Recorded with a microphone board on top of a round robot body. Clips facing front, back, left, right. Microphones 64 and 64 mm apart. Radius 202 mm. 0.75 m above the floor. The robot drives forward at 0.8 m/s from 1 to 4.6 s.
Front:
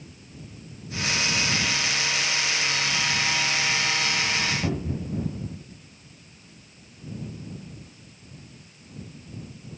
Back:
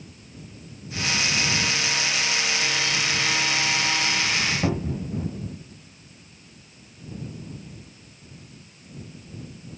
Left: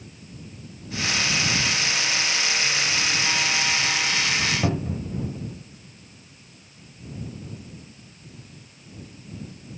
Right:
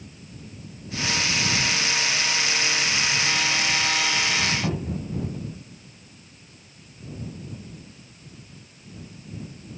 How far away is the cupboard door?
About 2 m.